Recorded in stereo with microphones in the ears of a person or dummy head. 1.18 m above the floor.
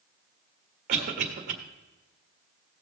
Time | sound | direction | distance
0.9 | a cough | 40° right (ahead or behind) | 1.7 m